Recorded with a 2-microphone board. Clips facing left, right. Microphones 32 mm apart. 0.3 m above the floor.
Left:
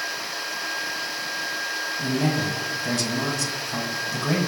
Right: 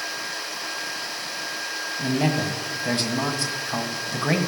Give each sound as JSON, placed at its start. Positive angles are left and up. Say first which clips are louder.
{"t": 2.0, "sound": "a man speaking", "louder": "right 2 dB", "side_deg": -45, "distance_m": 1.7}